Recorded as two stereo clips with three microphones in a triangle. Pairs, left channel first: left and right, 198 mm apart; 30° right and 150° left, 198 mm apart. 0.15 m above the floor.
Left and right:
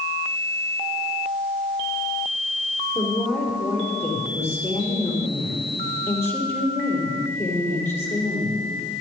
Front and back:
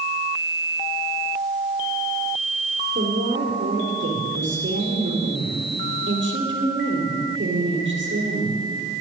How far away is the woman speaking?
About 5 m.